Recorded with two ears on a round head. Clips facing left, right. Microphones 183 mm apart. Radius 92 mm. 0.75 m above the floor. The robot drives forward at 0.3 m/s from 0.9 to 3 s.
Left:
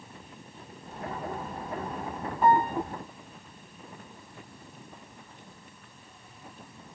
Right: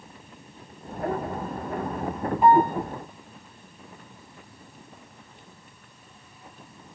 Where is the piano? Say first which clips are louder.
Right 5 dB; 15° right (ahead or behind), 0.8 m.